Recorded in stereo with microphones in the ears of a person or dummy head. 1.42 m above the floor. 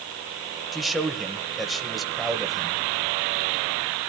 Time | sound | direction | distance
0.7 | a man speaking | centre (ahead or behind) | 1.5 m